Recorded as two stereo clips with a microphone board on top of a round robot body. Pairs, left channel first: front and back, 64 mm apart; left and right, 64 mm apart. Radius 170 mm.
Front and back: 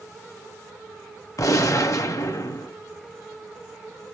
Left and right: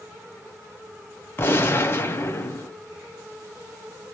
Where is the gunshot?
35° left, 1.0 m.